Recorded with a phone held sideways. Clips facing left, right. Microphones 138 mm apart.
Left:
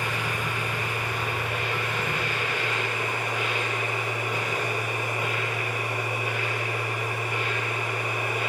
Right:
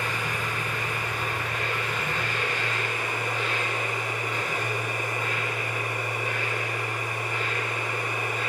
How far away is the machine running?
About 4 m.